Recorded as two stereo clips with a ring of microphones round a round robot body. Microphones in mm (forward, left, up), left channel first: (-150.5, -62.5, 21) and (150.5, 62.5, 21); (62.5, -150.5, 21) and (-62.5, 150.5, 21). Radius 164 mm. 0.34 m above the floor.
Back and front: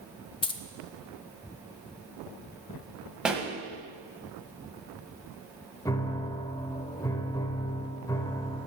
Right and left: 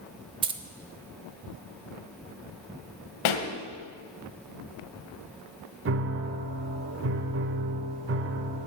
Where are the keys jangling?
155° left, 0.5 m.